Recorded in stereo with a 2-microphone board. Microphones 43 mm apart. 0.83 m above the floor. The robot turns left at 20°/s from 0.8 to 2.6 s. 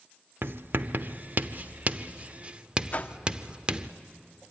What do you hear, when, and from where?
0.4 s writing: 55° right (ahead or behind), 0.7 m; by 3.9 s 25° right (ahead or behind), 0.7 m
2.9 s a whoosh: 35° left (ahead or behind), 0.7 m